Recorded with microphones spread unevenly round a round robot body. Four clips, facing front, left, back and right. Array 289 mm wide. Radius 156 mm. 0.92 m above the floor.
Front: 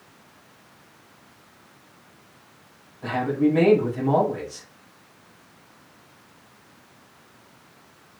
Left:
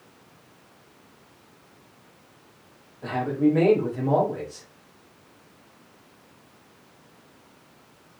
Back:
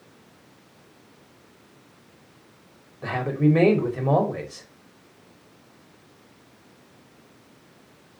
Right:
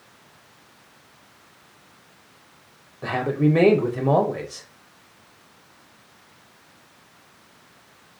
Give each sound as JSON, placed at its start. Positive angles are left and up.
{"t": 3.0, "sound": "a man speaking", "azimuth_deg": -110, "distance_m": 4.0}